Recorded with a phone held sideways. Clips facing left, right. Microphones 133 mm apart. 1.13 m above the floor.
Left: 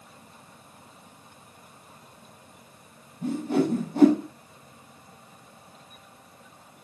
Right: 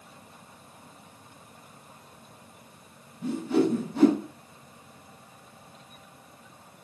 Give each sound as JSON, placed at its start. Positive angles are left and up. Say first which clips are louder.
{"t": 3.2, "sound": "a whoosh", "louder": "even", "side_deg": 45, "distance_m": 5.0}